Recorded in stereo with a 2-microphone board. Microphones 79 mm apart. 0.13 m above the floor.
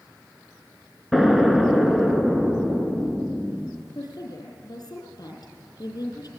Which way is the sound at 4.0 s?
50° left (ahead or behind).